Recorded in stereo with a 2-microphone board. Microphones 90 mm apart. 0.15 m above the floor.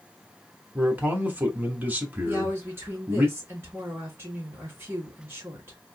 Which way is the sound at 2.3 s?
25° right (ahead or behind).